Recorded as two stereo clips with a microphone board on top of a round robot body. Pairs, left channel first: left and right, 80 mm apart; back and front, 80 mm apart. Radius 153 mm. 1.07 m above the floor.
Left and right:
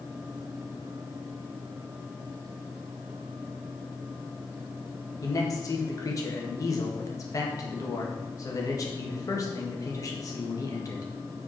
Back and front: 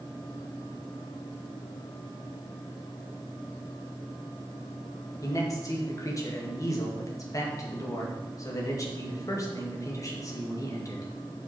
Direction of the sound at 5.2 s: 135° left.